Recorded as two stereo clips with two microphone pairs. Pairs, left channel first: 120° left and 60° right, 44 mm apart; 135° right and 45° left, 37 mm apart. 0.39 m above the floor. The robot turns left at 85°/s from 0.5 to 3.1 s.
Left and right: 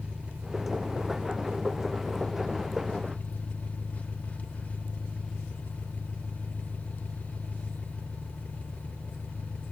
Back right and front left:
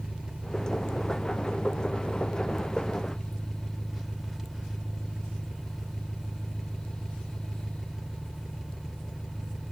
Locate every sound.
0.0 s an engine running: 20° right, 0.9 m; by 9.7 s 120° left, 0.9 m